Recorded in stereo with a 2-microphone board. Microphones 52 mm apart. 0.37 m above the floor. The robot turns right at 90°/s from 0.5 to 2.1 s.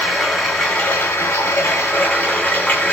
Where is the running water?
Straight ahead, 1.3 m; by 2.9 s 145° left, 1.3 m.